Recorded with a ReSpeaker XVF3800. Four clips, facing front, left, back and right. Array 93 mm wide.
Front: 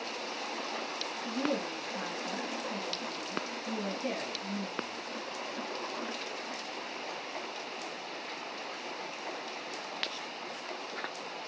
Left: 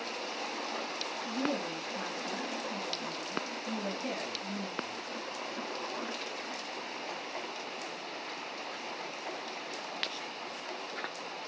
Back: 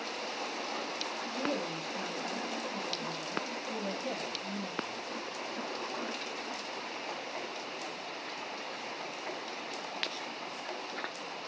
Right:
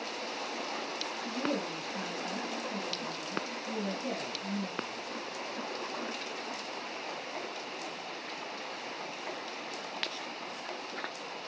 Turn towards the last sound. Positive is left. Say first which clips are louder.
# even, front 2 dB
turn(degrees=-20)